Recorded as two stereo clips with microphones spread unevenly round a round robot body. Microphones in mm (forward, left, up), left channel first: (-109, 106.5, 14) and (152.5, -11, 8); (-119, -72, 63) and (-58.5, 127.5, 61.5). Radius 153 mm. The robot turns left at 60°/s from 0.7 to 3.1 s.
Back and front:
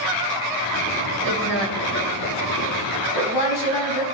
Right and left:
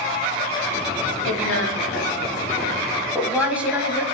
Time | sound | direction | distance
1.2 | a woman speaking | 95° right | 3.5 m